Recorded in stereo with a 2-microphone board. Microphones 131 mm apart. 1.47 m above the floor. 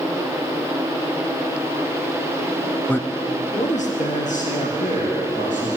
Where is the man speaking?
10° left (ahead or behind), 0.6 m; by 5.8 s 85° left, 4 m.